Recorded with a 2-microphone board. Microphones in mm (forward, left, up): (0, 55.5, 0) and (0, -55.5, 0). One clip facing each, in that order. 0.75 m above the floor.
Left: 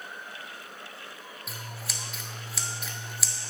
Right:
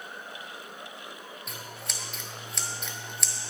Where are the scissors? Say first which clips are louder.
Left 1 dB; 5° left (ahead or behind), 0.9 m.